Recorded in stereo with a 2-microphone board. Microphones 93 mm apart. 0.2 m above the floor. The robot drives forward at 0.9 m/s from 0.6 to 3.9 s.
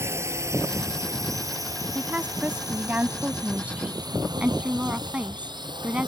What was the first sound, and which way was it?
A drone, 30° right (ahead or behind).